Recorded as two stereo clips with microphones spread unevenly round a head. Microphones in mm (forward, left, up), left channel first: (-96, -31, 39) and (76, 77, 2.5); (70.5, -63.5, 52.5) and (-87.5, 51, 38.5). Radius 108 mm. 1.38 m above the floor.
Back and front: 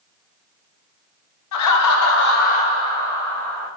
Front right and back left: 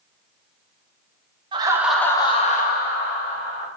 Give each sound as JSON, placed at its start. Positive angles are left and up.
{"t": 1.5, "sound": "laughter", "azimuth_deg": -150, "distance_m": 0.5}